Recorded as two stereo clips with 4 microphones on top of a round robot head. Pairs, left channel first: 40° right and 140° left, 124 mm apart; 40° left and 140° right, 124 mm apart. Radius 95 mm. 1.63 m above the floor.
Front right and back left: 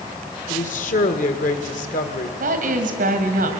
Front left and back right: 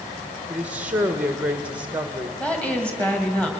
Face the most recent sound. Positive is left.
turn(degrees=120)